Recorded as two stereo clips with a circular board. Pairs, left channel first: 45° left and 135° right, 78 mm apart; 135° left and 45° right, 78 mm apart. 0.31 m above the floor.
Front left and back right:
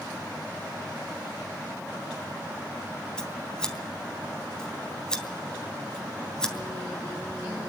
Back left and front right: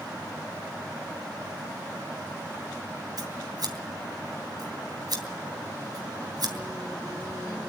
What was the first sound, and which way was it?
Scissors, 35° right.